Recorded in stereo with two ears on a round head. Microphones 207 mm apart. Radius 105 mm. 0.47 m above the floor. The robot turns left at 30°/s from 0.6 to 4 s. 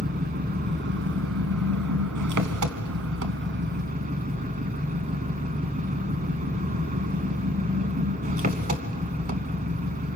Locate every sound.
0.0 s an engine running: 40° right, 1.0 m; by 10.2 s 140° right, 1.0 m